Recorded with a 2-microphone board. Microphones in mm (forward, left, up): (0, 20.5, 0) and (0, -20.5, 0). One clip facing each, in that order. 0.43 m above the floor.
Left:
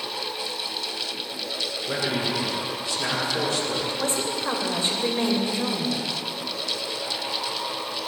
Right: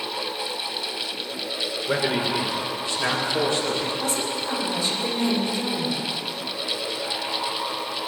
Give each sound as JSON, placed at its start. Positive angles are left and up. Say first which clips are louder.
{"t": 1.9, "sound": "a man speaking", "louder": "right 3 dB", "side_deg": -30, "distance_m": 1.6}
{"t": 4.0, "sound": "a woman speaking", "louder": "even", "side_deg": 40, "distance_m": 1.6}